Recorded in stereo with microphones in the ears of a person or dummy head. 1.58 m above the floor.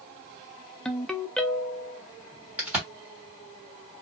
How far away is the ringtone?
About 0.5 m.